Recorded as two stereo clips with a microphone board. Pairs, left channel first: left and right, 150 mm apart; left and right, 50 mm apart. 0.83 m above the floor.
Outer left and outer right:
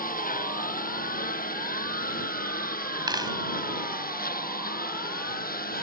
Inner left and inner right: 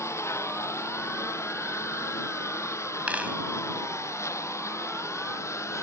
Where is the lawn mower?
70° left (ahead or behind); by 5.8 s 75° left (ahead or behind).